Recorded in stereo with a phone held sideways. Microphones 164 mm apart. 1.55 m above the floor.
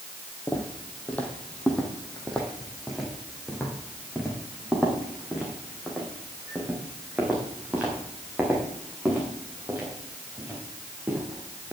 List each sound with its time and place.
0.5 s footsteps: 10° left (ahead or behind), 2.5 m; by 11.7 s 10° right (ahead or behind), 7.5 m